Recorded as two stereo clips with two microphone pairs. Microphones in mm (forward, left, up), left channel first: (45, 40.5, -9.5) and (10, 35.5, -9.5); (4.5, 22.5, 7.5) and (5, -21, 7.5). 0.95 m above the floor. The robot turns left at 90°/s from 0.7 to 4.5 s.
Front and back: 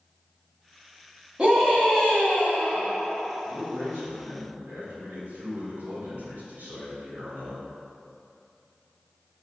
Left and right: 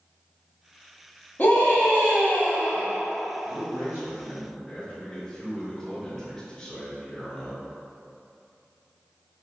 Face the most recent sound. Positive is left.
turn(degrees=180)